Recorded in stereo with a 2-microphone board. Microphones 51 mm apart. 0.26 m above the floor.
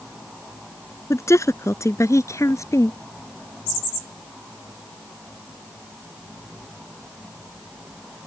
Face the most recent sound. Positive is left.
turn(degrees=75)  # may be behind; listen again after turning